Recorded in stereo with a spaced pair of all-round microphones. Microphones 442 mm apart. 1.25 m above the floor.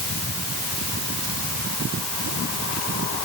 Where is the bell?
No bell in this recording.